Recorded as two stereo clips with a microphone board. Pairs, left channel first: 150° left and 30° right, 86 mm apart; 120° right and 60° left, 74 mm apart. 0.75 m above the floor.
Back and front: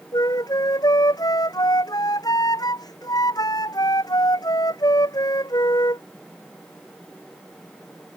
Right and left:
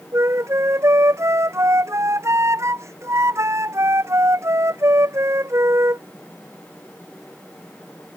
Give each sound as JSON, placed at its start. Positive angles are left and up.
{"t": 0.1, "sound": "a flute", "azimuth_deg": 110}